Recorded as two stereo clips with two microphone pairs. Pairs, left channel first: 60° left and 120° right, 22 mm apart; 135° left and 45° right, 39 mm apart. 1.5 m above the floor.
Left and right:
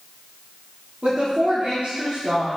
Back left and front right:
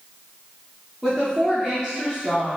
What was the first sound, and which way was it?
A woman speaking, 120° right.